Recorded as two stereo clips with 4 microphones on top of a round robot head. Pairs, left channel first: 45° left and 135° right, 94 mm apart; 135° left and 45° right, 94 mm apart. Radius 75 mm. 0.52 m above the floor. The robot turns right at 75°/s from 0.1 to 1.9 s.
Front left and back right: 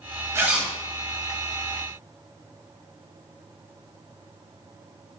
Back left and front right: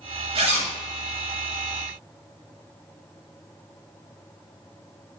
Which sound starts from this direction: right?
A zipper, at 0.3 s.